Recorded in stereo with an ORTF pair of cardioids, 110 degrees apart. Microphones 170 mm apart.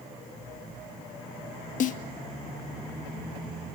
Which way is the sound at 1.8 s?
55° left.